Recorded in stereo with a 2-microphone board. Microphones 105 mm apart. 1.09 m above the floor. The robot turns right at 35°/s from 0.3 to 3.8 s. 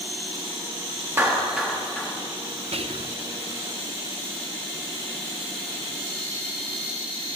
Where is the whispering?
65° right (ahead or behind), 0.6 m.